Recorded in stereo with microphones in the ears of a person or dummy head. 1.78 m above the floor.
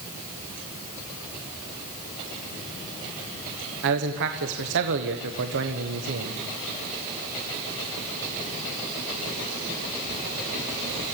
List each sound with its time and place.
3.8 s a man speaking: 65° right (ahead or behind), 1.3 m